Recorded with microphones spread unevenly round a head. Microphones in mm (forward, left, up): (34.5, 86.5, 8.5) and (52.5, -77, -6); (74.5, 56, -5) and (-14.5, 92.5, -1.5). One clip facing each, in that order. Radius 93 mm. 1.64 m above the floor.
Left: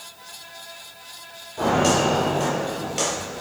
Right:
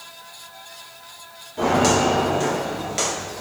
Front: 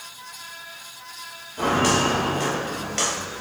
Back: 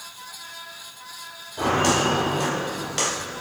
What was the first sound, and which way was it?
Footsteps, 150° right.